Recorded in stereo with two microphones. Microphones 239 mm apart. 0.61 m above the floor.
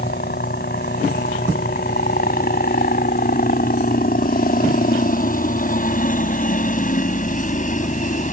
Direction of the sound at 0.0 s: 40° left (ahead or behind).